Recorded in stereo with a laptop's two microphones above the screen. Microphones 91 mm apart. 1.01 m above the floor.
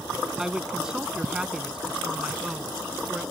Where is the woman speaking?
5° right (ahead or behind).